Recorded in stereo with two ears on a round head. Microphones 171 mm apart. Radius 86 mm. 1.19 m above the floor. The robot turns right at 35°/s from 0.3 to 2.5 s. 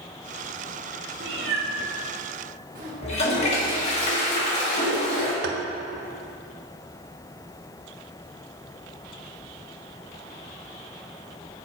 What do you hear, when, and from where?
1.2 s a cat meowing: 70° right (ahead or behind), 1.4 m; by 2.9 s 50° right (ahead or behind), 1.4 m
3.0 s a toilet flushing: 40° left (ahead or behind), 1.6 m
5.4 s tapping: 65° right (ahead or behind), 0.7 m